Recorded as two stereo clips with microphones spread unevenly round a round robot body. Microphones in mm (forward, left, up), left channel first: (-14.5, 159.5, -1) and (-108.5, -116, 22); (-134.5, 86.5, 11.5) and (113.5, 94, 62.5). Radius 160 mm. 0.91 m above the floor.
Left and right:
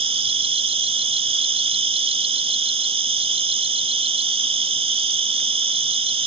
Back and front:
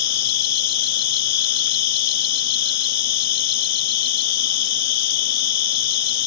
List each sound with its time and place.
0.0 s an insect: straight behind